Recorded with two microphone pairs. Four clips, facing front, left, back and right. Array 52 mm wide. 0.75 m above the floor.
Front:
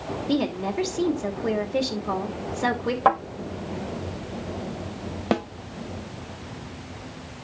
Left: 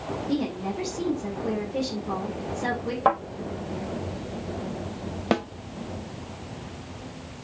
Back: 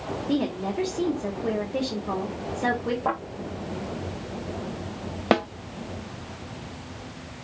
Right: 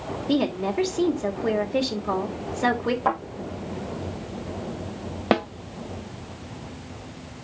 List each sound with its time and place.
0.3 s a woman speaking: 50° right, 2.5 m
3.0 s a thud: 20° left, 6 m
5.3 s a snare drum: 150° right, 0.5 m